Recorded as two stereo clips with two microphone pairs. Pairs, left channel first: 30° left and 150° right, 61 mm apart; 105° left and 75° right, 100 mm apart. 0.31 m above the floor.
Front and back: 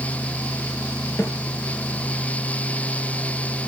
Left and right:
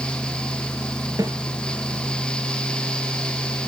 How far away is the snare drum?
About 4 m.